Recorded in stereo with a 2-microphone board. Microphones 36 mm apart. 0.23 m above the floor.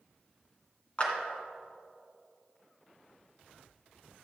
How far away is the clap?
About 2.5 m.